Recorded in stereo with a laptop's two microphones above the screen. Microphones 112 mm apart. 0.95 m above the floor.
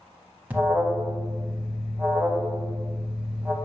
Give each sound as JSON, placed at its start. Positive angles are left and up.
{"t": 0.5, "sound": "an alarm", "side_deg": -15, "distance_m": 0.8}